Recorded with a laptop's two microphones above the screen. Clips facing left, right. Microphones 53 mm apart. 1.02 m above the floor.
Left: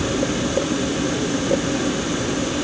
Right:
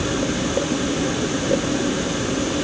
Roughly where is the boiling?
No boiling in this recording.